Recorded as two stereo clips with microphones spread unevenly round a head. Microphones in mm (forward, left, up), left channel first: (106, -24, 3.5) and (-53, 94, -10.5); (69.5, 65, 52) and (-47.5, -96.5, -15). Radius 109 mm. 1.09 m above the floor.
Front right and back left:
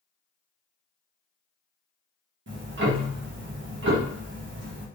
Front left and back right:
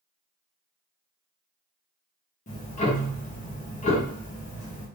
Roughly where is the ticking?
Behind left.